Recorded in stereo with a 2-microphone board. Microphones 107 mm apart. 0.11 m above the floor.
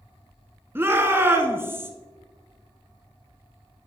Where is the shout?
20° right (ahead or behind), 1.1 m.